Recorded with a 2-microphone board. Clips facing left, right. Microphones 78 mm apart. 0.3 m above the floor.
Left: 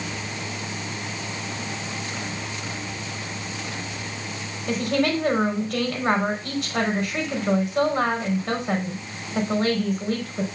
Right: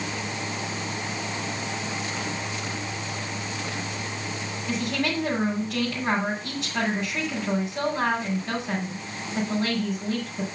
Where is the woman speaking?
65° left (ahead or behind), 3.5 m.